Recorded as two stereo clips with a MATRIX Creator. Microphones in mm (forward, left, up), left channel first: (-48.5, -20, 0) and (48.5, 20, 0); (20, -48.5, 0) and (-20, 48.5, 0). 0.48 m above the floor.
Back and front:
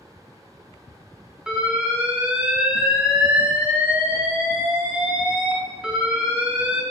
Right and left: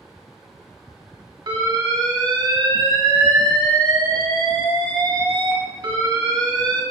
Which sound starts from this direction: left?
An alarm, at 1.5 s.